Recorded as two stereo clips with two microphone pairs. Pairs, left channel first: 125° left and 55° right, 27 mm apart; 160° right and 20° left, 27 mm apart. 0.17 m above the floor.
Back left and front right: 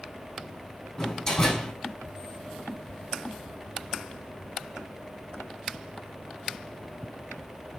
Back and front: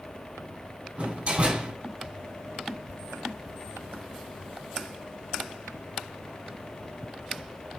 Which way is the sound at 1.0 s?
60° left.